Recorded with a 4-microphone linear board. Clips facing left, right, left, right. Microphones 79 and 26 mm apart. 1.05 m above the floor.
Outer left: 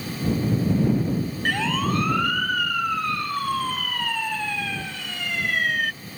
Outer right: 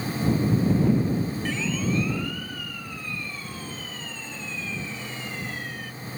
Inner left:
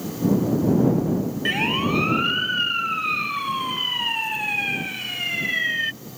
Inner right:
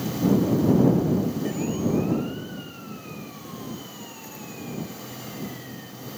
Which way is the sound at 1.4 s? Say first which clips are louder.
Outer left 4 dB, inner left 5 dB; 65° left (ahead or behind).